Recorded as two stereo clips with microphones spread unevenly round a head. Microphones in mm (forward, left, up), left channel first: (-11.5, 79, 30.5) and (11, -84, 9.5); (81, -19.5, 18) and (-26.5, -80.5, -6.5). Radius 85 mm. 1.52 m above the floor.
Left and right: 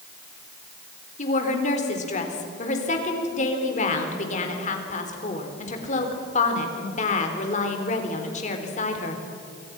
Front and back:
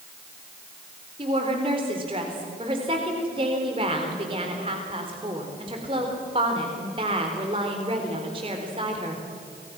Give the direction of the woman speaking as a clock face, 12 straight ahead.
7 o'clock.